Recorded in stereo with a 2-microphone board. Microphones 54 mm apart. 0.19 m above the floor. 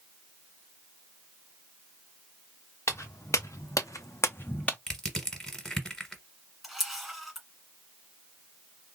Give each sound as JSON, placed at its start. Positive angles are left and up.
{"t": 2.9, "sound": "footsteps", "side_deg": 60, "distance_m": 1.1}
{"t": 4.9, "sound": "crushing", "side_deg": 10, "distance_m": 1.3}
{"t": 6.6, "sound": "a camera shutter", "side_deg": 0, "distance_m": 1.7}